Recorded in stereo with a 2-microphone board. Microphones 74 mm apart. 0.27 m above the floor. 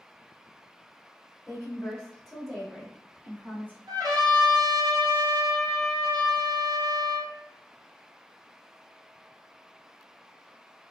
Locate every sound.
1.5 s a woman speaking: 25° left (ahead or behind), 0.9 m; by 3.8 s 20° right (ahead or behind), 1.2 m
3.9 s a trumpet: 60° right (ahead or behind), 1.2 m